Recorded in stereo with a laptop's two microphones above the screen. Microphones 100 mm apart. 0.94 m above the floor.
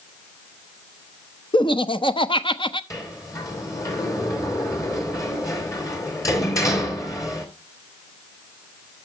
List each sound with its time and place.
1.5 s laughter: 55° left (ahead or behind), 0.9 m
2.9 s a sliding door: 35° left (ahead or behind), 3 m